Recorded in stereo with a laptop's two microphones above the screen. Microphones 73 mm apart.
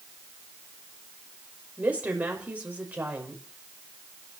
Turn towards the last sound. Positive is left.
turn(degrees=-20)  # may be behind; listen again after turning